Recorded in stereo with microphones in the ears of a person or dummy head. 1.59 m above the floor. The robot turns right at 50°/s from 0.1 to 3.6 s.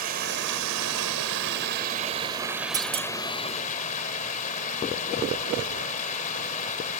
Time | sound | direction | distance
0.0 | running water | 135° right | ?
2.7 | a clunk | 20° right (ahead or behind) | ?